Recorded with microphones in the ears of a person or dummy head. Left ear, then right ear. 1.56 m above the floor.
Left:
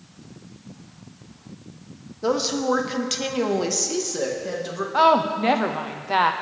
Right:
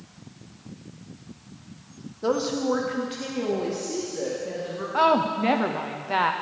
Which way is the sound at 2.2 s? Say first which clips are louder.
Left 2 dB; 5° left (ahead or behind).